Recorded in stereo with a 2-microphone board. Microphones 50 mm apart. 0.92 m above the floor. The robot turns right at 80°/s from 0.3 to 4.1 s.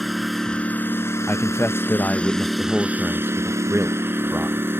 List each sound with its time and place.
0.0 s a lawn mower: straight ahead; by 4.8 s 55° right
1.3 s a man speaking: 60° left; by 4.7 s 75° right